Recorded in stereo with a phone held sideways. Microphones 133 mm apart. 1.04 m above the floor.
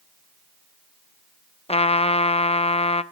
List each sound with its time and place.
1.7 s a trumpet: 50° left (ahead or behind), 0.6 m